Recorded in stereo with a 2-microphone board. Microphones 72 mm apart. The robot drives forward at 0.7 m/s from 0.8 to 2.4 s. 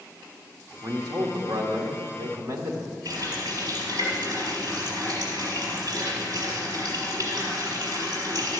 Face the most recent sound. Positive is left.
turn(degrees=-60)  # may be behind; listen again after turning